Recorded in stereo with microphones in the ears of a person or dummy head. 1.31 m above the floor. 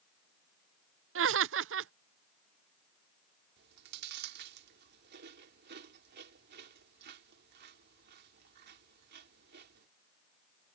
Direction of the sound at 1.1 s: 70° right (ahead or behind).